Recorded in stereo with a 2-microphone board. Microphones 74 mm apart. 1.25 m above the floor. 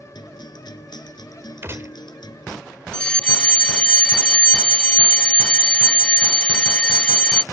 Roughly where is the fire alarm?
Centre.